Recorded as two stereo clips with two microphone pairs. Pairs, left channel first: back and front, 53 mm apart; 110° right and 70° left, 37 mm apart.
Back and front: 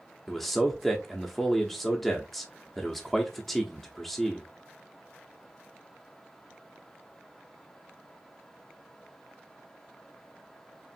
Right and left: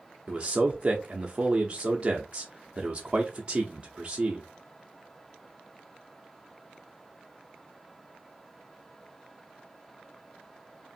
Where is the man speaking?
105° left, 0.6 m.